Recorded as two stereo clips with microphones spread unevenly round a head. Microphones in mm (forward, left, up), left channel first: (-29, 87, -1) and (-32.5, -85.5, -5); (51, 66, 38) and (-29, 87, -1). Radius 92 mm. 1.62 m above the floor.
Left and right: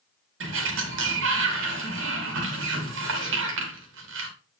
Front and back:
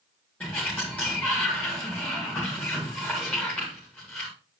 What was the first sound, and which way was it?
A sliding door, 100° right.